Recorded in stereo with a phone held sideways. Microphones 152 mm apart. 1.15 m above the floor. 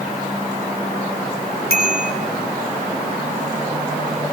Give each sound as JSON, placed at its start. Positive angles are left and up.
{"t": 1.7, "sound": "a bicycle bell", "side_deg": 80, "distance_m": 5.0}